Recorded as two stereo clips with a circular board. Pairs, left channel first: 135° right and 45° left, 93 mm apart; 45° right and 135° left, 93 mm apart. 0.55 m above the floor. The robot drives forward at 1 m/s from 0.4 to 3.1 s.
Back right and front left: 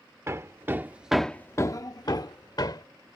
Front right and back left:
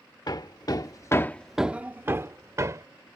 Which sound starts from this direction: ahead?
Hammering, at 0.3 s.